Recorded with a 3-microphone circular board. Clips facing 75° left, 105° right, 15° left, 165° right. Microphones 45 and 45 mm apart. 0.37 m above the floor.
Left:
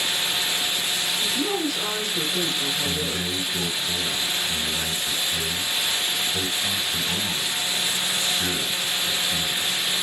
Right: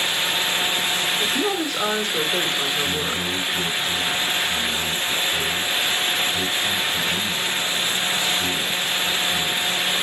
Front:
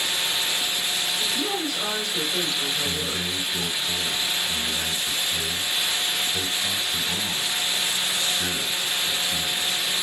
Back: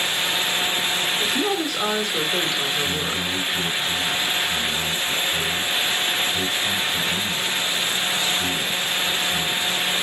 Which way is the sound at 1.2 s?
145° right.